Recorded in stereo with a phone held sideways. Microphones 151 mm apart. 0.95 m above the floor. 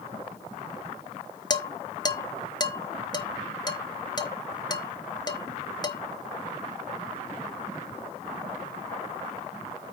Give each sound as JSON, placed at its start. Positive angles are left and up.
{"t": 1.5, "sound": "dishes clattering", "side_deg": 25, "distance_m": 0.9}